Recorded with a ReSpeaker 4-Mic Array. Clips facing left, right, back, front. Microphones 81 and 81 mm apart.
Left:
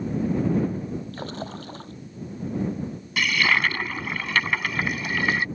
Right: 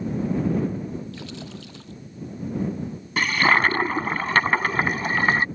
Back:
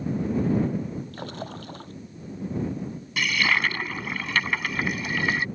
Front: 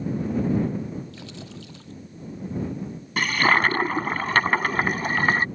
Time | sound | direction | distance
1.1 | a splash | 140° left | ?
3.2 | a toilet flushing | 40° right | ?